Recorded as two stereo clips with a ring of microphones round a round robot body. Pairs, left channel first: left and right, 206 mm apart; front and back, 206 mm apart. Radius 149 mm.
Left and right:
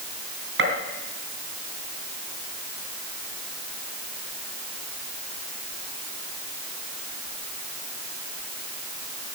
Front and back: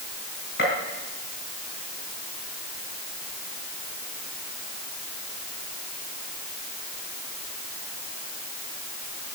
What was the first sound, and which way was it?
A gunshot, 60° right.